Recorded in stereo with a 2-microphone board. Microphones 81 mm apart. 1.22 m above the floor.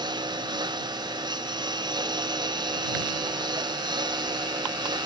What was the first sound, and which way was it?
A lawn mower, 70° right (ahead or behind).